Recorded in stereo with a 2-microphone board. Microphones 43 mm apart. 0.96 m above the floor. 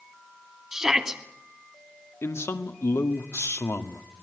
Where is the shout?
10° right (ahead or behind), 2.5 m.